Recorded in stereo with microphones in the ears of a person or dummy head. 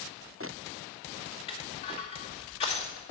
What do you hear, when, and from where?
1.5 s crushing: 30° left (ahead or behind), 2.5 m